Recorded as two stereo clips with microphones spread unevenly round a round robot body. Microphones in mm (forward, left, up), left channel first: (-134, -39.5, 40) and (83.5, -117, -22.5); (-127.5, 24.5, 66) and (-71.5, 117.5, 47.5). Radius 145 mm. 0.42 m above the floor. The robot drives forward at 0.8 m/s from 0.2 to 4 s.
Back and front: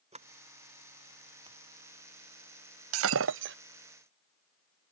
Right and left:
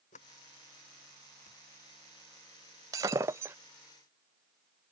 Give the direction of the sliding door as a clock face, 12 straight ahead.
3 o'clock.